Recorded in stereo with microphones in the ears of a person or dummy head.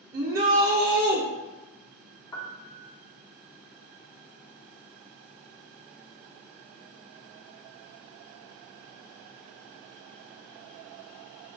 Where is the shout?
55° right (ahead or behind), 0.8 m.